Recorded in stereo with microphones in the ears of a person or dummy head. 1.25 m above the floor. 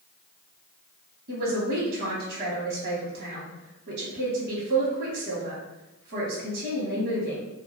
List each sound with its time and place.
1.3 s a man speaking: 55° right (ahead or behind), 0.9 m